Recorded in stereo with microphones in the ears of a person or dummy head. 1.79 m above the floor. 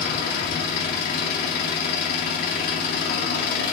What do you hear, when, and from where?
0.0 s an engine running: 50° left (ahead or behind), 2.0 m